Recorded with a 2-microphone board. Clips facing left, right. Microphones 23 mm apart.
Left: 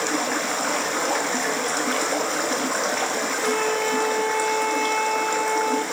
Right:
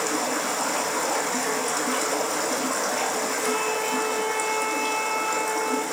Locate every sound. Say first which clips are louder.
0.0 s running water: left 2 dB; 30° left (ahead or behind), 0.7 m
3.4 s a flute: left 5 dB; 15° left (ahead or behind), 0.9 m